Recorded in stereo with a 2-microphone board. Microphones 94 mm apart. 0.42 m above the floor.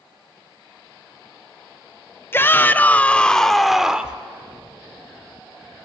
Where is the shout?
25° left (ahead or behind), 0.9 m; by 4.2 s 10° right (ahead or behind), 0.8 m.